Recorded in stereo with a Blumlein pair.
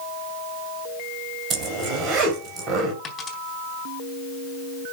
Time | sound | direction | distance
1.5 | a zipper | 30° right | 3 m
3.0 | a dropped coin | 20° left | 3.5 m